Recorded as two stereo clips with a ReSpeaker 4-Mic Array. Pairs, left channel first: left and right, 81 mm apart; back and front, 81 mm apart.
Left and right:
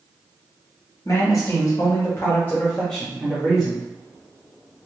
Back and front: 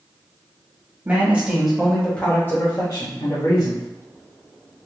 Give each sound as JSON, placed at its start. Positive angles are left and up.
{"t": 1.1, "sound": "a man speaking", "azimuth_deg": 60, "distance_m": 1.2}